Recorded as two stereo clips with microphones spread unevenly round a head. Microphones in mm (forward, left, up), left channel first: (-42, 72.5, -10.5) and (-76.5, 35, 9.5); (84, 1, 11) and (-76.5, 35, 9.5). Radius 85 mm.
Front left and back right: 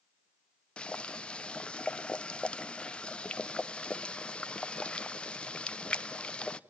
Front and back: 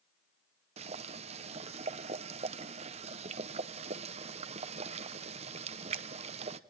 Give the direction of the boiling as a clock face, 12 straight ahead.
7 o'clock.